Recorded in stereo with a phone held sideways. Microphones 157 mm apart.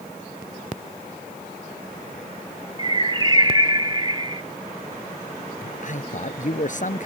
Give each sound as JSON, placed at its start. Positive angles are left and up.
{"t": 2.8, "sound": "a bird", "side_deg": -30}
{"t": 5.6, "sound": "a man speaking", "side_deg": 55}